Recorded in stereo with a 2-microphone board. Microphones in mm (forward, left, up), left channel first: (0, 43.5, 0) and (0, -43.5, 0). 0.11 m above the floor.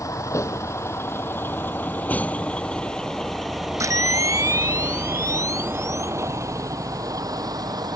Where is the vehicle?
40° left (ahead or behind); by 8.0 s 50° right (ahead or behind).